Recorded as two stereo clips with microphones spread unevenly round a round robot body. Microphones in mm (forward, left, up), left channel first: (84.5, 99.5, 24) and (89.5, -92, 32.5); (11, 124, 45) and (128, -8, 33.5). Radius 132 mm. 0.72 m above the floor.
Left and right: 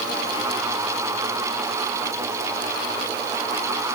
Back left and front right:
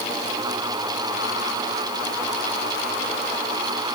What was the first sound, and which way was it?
Only background noise.